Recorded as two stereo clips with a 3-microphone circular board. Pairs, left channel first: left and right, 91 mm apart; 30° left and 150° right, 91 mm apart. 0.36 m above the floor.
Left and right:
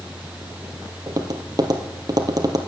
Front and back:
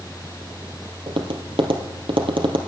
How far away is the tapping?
About 2.5 m.